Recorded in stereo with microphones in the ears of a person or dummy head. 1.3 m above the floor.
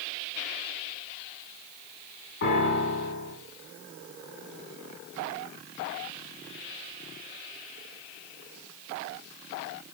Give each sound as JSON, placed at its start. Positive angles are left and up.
{"t": 2.4, "sound": "a piano", "side_deg": 60, "distance_m": 3.0}